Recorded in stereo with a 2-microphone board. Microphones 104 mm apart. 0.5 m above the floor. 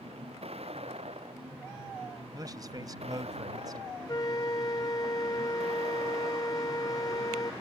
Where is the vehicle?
75° right (ahead or behind); by 7.6 s 80° right.